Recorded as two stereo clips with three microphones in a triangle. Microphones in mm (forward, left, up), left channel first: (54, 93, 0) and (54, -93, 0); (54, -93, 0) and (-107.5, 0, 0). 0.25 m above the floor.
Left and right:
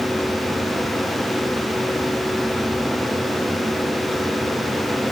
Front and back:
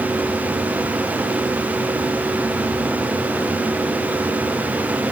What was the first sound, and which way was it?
Only background noise.